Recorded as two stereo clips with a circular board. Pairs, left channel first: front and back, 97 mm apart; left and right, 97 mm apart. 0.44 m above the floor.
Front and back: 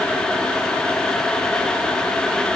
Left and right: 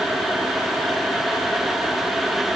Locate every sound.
Only background noise.